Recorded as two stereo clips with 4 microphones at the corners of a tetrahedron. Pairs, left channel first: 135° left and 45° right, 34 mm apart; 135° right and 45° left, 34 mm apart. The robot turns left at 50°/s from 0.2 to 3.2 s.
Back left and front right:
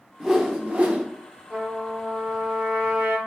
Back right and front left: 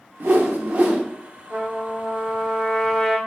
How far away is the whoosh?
About 0.5 m.